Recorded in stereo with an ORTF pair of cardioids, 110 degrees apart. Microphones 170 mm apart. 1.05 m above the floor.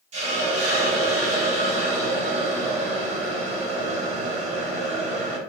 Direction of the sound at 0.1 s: 45° right.